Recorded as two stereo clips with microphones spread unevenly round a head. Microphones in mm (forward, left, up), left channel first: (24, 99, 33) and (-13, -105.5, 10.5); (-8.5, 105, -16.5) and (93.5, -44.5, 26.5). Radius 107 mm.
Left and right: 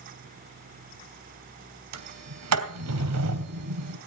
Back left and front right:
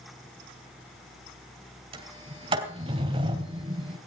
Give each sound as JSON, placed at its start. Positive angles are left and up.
{"t": 1.9, "sound": "a sliding door", "azimuth_deg": -115, "distance_m": 2.5}